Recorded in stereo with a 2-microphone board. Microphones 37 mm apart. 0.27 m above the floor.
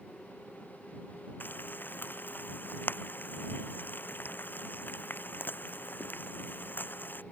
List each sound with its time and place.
1.4 s frying: 60° left (ahead or behind)